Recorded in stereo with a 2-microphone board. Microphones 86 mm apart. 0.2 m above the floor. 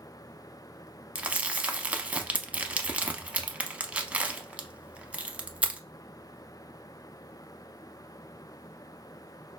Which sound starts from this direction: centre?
Crumpling, at 1.1 s.